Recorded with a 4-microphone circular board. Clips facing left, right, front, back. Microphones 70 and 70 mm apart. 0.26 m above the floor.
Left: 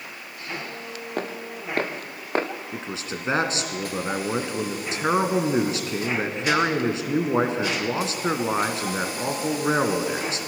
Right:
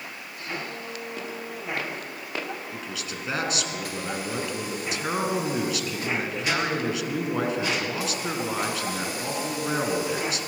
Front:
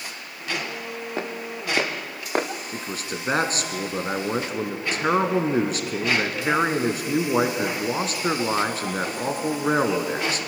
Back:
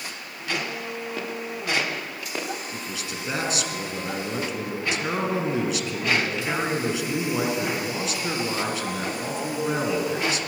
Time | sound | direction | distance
1.2 | footsteps | 55° left | 3 m
2.7 | a man speaking | 40° left | 3 m